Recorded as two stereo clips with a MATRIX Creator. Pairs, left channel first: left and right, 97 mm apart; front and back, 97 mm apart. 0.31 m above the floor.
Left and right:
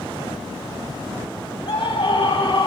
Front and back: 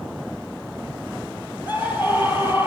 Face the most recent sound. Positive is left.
turn(degrees=115)